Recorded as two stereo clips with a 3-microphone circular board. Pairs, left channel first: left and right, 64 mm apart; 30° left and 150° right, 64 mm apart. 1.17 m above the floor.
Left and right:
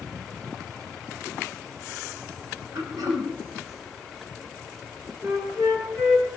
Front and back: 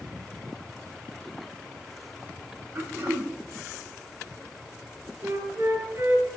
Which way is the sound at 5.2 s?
120° right.